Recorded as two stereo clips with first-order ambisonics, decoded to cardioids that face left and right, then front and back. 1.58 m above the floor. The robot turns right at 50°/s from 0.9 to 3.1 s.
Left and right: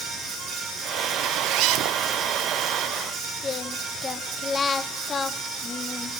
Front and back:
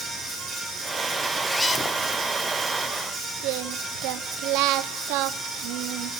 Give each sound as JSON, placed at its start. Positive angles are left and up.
{"t": 1.2, "sound": "a zipper", "azimuth_deg": -100, "distance_m": 1.0}
{"t": 3.4, "sound": "singing", "azimuth_deg": 160, "distance_m": 1.0}